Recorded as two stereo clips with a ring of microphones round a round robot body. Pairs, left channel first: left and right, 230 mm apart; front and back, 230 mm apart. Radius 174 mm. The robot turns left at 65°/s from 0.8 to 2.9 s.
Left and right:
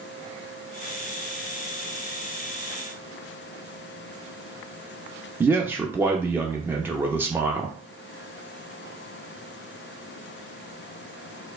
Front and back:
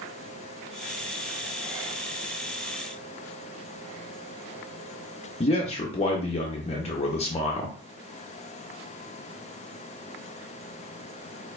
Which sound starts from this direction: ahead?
A man speaking, at 5.4 s.